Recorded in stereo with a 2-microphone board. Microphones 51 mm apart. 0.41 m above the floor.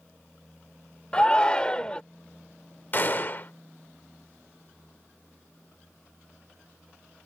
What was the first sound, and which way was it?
A shout, 20° left (ahead or behind).